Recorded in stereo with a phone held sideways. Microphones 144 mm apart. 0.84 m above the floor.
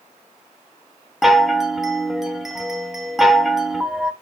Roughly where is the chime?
Centre.